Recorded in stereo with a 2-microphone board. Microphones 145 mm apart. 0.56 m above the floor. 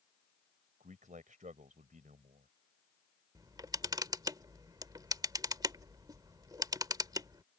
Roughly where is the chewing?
I don't hear chewing.